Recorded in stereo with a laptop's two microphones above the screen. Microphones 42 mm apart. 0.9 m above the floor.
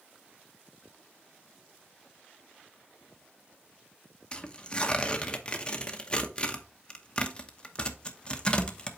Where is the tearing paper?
20° left (ahead or behind), 0.9 m.